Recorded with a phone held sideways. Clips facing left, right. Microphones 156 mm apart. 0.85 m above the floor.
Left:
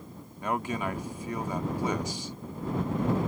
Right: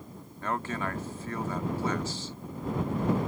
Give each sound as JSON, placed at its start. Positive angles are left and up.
{"t": 0.4, "sound": "a man speaking", "side_deg": 15}